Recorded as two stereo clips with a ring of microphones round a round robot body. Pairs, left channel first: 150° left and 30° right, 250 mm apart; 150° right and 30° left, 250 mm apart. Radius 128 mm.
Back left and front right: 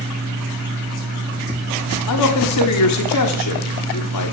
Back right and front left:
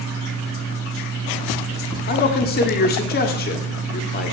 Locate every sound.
2.1 s a man speaking: 155° left, 1.5 m